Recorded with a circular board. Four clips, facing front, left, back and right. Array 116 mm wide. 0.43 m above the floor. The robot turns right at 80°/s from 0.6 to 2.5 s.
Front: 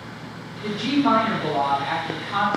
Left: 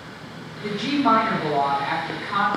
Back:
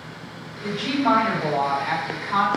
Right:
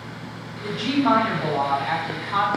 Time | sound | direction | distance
0.6 | a woman speaking | 20° left | 1.6 m